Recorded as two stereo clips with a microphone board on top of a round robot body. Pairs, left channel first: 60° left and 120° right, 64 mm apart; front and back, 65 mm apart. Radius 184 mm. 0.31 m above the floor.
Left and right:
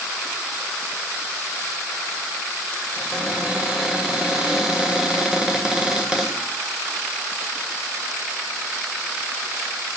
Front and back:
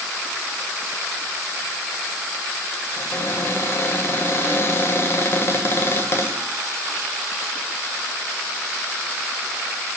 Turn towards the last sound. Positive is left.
turn(degrees=-40)